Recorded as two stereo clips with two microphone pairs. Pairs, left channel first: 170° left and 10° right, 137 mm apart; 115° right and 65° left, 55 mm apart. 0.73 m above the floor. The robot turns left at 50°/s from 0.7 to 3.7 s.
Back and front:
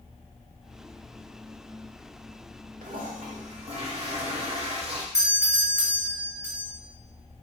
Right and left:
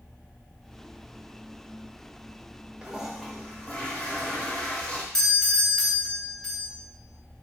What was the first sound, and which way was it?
A toilet flushing, 5° right.